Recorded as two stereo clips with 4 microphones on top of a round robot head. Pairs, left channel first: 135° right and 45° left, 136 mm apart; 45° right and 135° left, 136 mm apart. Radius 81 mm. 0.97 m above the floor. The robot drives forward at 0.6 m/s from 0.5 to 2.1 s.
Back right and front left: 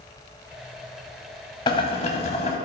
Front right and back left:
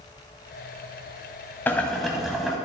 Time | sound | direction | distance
1.7 | boiling | 110° right | 0.8 m